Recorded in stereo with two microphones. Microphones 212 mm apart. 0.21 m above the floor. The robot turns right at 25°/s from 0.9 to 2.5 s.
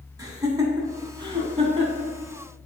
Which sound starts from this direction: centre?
Laughter, at 0.2 s.